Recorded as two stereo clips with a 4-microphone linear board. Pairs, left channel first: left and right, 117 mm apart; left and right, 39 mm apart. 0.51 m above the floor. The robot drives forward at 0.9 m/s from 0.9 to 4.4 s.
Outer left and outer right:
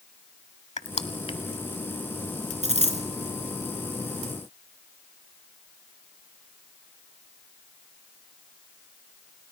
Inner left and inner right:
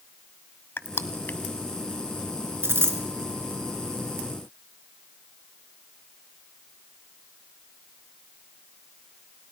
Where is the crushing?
80° left, 0.9 m; by 1.4 s 55° left (ahead or behind), 1.0 m.